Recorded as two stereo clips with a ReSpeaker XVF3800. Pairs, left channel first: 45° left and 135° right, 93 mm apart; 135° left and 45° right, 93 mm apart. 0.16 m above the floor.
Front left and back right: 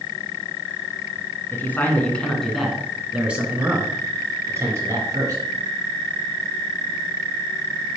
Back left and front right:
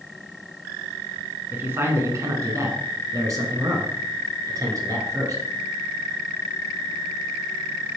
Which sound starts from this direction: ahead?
A man speaking, at 1.5 s.